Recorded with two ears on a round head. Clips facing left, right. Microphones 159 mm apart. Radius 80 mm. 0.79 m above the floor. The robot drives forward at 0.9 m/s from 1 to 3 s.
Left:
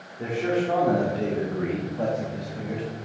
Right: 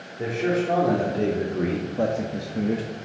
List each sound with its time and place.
0.2 s a man speaking: 25° right (ahead or behind), 1.5 m; by 2.9 s 50° right (ahead or behind), 0.8 m